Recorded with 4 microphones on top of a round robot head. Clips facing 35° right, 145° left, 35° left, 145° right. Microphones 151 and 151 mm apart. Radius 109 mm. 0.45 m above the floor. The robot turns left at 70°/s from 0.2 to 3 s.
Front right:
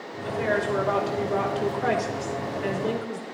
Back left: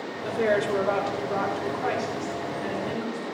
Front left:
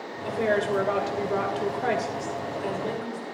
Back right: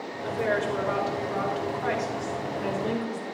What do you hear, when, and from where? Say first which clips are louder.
0.2 s a woman speaking: back left 2 dB, front left 2 dB; 110° left, 2.0 m; by 3.2 s 85° right, 2.0 m